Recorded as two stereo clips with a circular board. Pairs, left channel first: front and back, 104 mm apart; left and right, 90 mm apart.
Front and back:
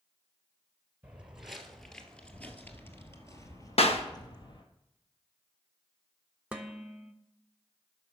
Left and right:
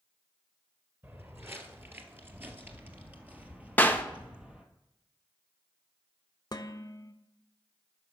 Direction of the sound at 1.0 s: 115° right.